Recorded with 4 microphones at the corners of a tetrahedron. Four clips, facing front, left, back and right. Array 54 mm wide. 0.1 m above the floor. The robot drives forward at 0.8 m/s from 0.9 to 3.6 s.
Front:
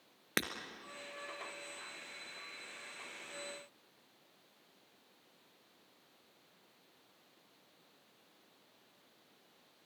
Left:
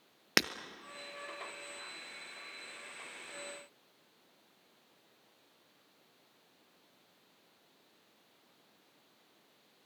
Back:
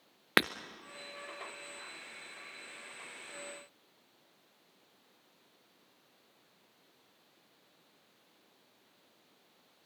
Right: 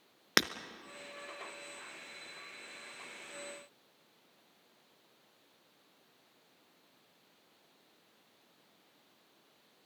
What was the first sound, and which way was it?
Breaking glass, straight behind.